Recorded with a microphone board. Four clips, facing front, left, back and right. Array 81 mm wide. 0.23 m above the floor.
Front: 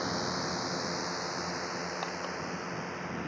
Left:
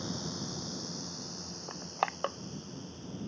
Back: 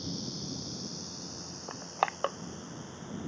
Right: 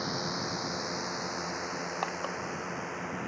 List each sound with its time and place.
0.0 s a drone: 35° right; by 3.3 s 60° right
1.7 s crushing: 160° left